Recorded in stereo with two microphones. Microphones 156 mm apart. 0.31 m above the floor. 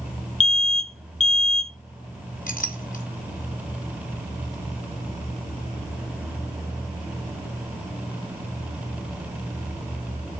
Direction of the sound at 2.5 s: 60° left (ahead or behind).